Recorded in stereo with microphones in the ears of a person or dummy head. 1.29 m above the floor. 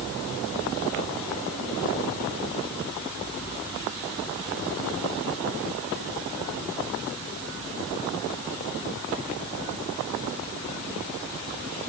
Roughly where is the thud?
No thud in this recording.